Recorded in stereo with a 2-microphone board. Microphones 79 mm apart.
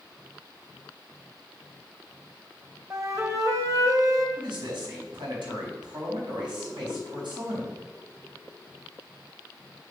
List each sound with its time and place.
2.9 s a flute: 45° right (ahead or behind), 1.4 m
4.4 s a man speaking: 85° right, 4 m